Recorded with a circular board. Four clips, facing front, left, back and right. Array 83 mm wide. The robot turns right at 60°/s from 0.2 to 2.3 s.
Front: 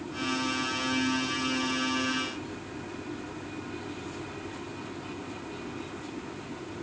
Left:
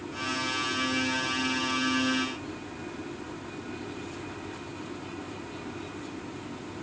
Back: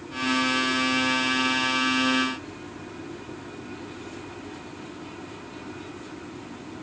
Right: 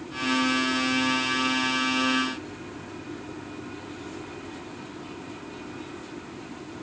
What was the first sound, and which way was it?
Only background noise.